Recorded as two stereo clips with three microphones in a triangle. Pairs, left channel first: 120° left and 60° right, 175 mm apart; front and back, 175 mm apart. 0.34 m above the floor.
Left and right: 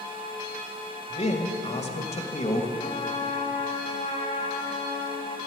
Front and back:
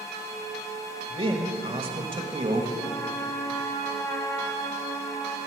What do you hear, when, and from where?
1.1 s a man speaking: 140° left, 1.5 m
2.8 s a trumpet: 70° left, 1.2 m